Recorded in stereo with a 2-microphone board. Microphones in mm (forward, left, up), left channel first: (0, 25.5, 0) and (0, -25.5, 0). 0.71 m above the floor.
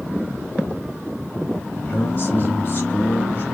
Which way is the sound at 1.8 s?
35° left (ahead or behind).